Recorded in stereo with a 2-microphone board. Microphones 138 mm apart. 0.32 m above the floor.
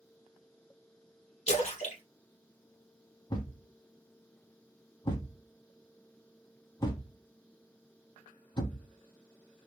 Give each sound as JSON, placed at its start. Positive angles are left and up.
{"t": 1.5, "sound": "a splash", "side_deg": 50, "distance_m": 1.1}
{"t": 3.3, "sound": "a thud", "side_deg": 30, "distance_m": 0.8}